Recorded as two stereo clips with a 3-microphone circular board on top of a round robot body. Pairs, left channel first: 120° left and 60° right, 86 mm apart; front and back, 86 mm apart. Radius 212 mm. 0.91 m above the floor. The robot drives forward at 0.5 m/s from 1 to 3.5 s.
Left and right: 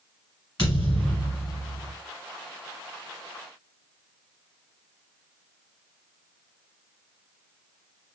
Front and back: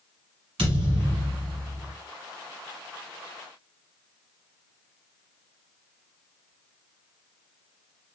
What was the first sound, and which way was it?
A thud, 165° left.